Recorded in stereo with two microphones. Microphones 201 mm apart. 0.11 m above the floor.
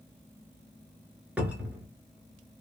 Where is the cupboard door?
5° right (ahead or behind), 0.9 m.